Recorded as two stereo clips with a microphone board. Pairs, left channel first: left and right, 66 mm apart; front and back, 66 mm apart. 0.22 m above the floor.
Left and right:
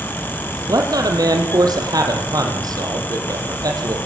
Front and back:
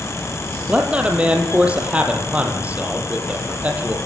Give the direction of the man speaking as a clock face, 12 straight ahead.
4 o'clock.